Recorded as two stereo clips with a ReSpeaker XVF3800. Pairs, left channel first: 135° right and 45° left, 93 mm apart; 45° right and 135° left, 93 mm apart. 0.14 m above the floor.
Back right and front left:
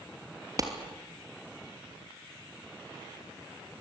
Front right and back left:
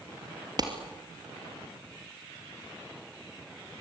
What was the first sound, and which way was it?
A clap, 95° left.